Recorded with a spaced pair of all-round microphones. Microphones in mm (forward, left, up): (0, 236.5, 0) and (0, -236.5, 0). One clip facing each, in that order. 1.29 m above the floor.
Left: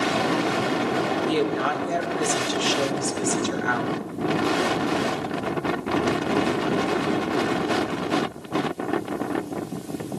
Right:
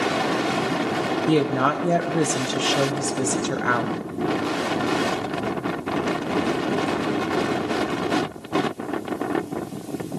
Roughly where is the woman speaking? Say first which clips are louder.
Right 7 dB; right.